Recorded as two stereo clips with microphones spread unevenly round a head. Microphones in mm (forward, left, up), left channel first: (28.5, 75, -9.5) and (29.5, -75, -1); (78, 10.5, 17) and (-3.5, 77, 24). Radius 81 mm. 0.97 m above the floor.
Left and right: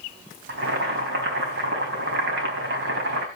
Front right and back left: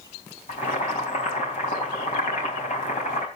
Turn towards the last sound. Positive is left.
turn(degrees=-85)